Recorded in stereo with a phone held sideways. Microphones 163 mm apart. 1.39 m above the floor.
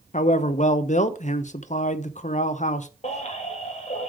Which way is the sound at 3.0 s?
45° left (ahead or behind).